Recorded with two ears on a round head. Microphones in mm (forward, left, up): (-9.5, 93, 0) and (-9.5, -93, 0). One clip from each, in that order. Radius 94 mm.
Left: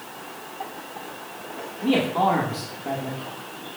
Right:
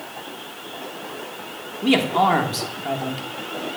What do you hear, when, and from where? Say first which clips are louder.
1.8 s a man speaking: right 3 dB; 50° right (ahead or behind), 1.3 m